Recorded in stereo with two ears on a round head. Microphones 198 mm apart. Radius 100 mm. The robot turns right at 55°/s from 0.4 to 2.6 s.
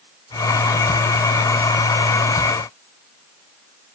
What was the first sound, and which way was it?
Only background noise.